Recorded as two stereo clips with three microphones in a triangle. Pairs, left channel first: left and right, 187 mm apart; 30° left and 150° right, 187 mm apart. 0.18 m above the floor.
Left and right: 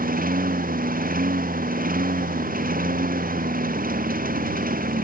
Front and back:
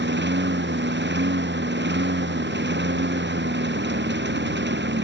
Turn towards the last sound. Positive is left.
turn(degrees=-130)